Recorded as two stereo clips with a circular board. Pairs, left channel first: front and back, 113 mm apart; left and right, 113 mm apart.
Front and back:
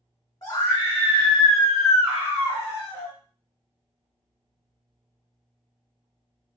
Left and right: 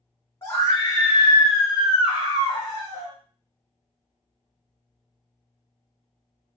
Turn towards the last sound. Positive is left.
turn(degrees=135)